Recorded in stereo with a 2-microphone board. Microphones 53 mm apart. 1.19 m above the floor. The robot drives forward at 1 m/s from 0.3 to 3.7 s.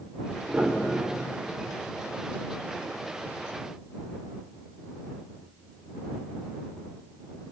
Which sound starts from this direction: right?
A piano, at 0.5 s.